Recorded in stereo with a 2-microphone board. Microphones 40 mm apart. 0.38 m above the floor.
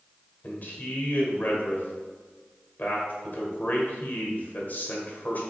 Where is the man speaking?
45° left (ahead or behind), 1.2 m.